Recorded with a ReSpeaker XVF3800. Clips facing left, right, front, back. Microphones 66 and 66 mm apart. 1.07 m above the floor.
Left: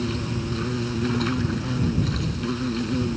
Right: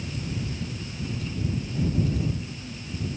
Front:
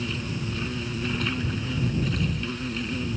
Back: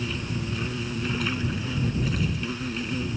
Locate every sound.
0.0 s an insect: 95° left